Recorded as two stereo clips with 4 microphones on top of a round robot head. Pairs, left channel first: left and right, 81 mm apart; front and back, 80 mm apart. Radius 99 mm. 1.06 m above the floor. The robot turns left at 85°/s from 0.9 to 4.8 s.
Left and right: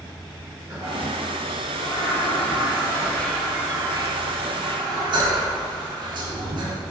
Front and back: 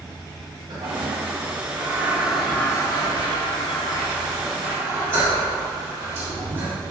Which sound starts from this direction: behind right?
A toilet flushing, at 0.7 s.